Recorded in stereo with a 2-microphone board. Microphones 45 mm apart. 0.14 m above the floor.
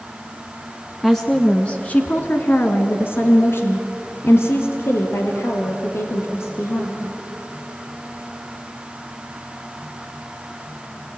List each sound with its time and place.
1.0 s a woman speaking: 5° left (ahead or behind), 1.3 m; by 7.0 s 65° left (ahead or behind), 4.5 m